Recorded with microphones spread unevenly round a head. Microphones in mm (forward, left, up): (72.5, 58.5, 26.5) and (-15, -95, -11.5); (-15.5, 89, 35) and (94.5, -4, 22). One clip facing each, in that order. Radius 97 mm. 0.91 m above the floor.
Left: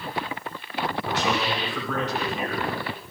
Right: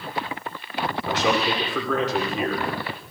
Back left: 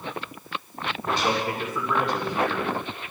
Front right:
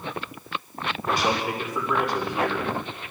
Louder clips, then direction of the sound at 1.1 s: Right 5 dB, even; 120° right.